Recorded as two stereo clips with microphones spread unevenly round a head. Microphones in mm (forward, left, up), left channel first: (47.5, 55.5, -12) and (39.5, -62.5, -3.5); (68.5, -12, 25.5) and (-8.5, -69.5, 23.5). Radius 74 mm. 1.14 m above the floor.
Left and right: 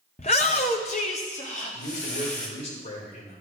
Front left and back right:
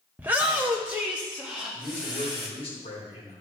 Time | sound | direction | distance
0.2 | a shout | 140° left | 0.7 m
1.7 | a man speaking | 75° left | 4 m